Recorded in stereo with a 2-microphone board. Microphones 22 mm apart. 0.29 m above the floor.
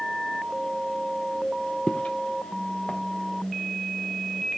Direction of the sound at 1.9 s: 75° left (ahead or behind).